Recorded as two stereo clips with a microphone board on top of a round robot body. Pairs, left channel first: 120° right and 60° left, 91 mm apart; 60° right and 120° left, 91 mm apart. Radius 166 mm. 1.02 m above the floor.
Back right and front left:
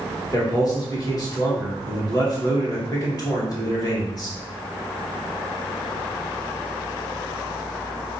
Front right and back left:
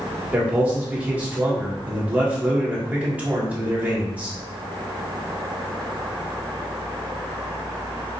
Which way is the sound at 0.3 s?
165° right.